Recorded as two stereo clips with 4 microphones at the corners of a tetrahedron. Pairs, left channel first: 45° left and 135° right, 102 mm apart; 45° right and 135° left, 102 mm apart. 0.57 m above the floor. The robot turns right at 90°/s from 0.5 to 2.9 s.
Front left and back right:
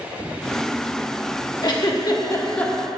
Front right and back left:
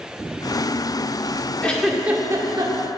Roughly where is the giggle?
Ahead left.